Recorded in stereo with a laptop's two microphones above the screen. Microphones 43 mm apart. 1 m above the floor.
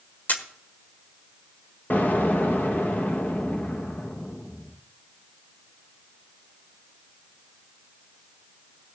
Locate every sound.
0.3 s a camera shutter: 45° left (ahead or behind), 1.3 m
1.9 s an explosion: 50° left (ahead or behind), 0.7 m